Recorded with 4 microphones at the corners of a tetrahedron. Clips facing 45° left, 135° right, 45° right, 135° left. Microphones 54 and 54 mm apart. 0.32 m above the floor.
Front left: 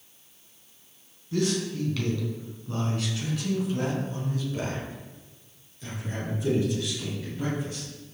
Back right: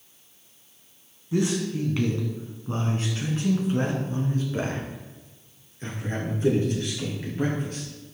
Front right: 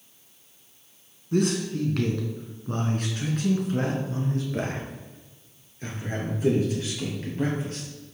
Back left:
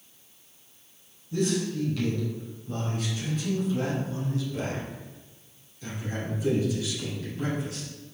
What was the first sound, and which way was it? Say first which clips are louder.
A man speaking: back right 2 dB, front right 3 dB; 65° right.